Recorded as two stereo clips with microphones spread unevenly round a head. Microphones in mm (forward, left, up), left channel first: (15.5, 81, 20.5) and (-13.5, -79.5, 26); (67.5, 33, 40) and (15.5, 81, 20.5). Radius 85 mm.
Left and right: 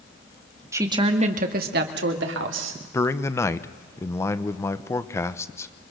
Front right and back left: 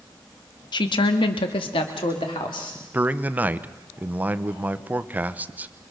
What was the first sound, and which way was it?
A woman speaking, 25° right.